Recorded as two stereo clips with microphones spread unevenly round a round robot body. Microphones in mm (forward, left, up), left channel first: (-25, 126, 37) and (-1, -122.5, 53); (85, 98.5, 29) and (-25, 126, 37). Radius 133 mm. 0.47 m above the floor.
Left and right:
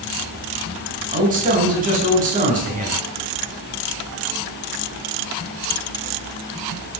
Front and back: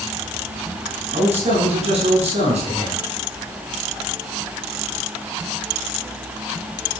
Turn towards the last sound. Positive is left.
turn(degrees=-145)